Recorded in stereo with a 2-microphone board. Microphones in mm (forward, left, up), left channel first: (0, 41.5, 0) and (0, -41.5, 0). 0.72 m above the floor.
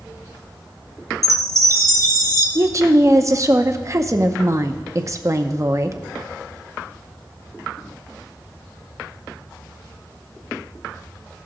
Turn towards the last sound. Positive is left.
turn(degrees=-40)  # may be behind; listen again after turning